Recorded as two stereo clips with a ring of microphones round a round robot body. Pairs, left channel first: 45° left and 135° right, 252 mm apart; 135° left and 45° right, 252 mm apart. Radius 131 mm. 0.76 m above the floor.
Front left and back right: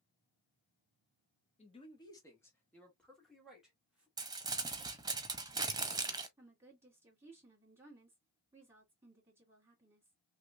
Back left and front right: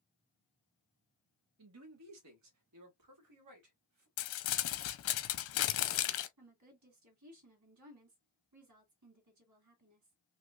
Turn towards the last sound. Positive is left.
turn(degrees=-55)